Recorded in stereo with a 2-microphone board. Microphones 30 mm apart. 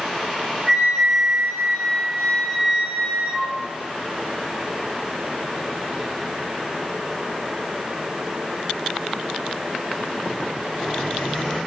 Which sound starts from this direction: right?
A flute, at 0.7 s.